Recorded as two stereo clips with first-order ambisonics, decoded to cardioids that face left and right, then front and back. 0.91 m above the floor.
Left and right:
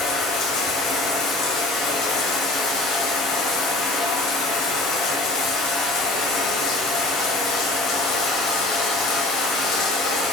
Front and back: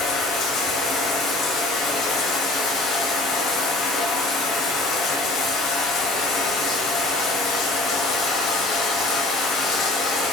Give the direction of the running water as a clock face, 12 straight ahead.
10 o'clock.